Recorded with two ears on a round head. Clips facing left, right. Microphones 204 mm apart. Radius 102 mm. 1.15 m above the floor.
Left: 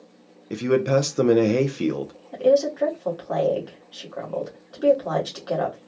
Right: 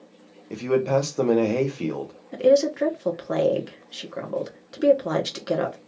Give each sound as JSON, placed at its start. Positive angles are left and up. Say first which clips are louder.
{"t": 0.5, "sound": "a man speaking", "louder": "left 2 dB", "side_deg": 20, "distance_m": 0.6}
{"t": 2.3, "sound": "a woman speaking", "louder": "right 1 dB", "side_deg": -30, "distance_m": 1.0}